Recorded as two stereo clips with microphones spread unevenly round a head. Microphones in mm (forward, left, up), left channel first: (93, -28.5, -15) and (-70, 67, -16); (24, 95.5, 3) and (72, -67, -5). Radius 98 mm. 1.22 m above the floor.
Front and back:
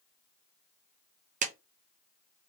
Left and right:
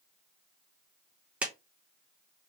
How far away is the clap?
About 0.5 m.